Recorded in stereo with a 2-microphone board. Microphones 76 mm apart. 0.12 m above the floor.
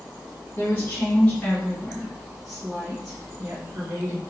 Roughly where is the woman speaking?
Left.